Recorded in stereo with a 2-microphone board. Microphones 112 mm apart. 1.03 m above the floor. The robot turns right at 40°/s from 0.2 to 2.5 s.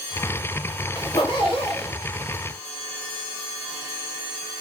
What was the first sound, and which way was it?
A zipper, 35° left.